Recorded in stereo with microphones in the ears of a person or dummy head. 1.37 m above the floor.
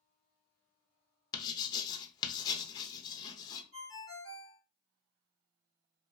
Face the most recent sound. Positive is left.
turn(degrees=-75)  # may be behind; listen again after turning